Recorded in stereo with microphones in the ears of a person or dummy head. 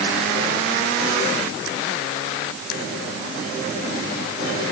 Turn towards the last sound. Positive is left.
No sound to turn to.